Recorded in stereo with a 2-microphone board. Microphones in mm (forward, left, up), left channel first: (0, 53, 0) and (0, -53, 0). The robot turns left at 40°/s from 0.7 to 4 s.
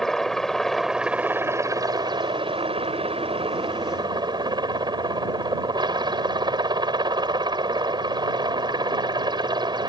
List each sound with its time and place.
0.0 s a helicopter: 5° left; by 9.9 s 130° right